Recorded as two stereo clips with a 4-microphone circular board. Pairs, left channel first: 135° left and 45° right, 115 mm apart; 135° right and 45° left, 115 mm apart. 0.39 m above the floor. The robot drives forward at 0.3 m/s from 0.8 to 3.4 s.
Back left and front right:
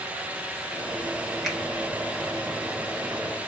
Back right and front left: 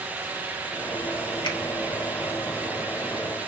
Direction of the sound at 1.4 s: 135° right.